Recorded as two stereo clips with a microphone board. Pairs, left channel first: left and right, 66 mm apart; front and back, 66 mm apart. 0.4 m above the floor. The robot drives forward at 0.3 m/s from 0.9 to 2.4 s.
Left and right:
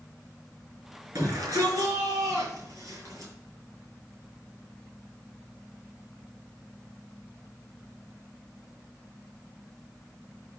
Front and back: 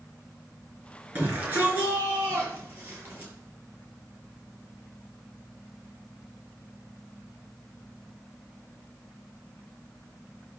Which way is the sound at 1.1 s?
125° right.